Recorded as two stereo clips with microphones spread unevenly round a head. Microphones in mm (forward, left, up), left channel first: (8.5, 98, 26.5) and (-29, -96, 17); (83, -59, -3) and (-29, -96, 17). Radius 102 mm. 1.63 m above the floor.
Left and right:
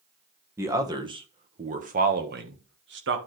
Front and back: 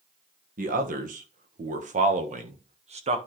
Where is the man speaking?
Straight behind, 1.5 m; by 3.2 s 130° right, 1.9 m.